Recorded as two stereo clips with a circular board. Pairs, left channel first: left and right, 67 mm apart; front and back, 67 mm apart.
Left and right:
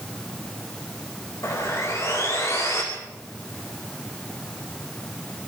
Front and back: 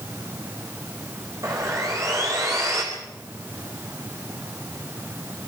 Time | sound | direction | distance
1.4 | sawing | 135° left | 4 m